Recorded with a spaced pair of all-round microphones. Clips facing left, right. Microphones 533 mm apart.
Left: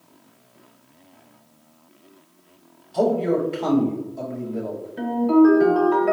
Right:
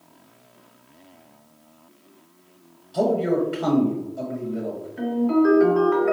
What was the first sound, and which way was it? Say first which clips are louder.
A man speaking: left 1 dB; 40° right (ahead or behind).